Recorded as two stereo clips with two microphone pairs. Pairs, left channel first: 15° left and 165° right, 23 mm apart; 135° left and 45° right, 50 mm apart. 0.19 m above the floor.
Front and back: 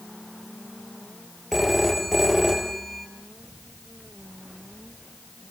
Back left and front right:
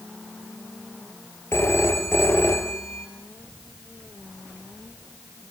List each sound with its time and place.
1.5 s a phone ringing: 110° left, 2.5 m